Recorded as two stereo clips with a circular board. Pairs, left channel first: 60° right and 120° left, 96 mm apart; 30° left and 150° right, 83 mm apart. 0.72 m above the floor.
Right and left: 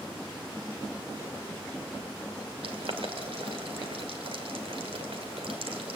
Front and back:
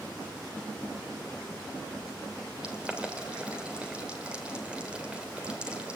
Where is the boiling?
135° left, 2.5 m.